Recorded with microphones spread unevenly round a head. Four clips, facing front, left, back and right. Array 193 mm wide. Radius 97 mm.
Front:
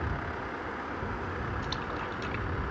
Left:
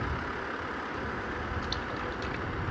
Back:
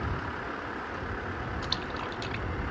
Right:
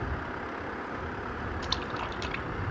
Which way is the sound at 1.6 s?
115° right.